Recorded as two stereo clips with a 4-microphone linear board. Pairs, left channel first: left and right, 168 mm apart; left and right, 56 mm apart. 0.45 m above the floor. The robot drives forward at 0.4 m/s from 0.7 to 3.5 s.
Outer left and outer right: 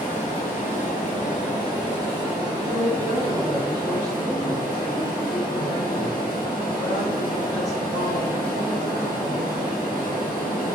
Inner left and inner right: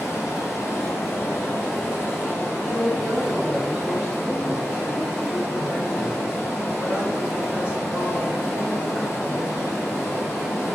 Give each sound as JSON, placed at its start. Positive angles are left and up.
{"t": 0.0, "sound": "running water", "side_deg": 50, "distance_m": 1.9}
{"t": 2.6, "sound": "a woman speaking", "side_deg": -25, "distance_m": 1.7}